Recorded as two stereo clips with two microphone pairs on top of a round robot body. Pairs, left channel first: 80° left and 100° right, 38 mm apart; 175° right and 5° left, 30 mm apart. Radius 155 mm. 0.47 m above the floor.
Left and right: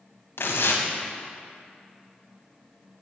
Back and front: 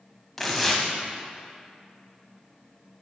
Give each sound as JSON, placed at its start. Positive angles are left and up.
{"t": 0.4, "sound": "tearing paper", "azimuth_deg": 95, "distance_m": 0.8}